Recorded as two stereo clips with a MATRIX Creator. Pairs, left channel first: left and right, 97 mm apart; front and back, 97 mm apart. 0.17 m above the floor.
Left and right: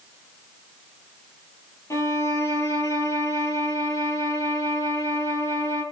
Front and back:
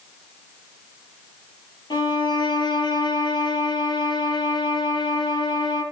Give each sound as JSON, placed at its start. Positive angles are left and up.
{"t": 1.9, "sound": "a violin", "azimuth_deg": 35, "distance_m": 4.0}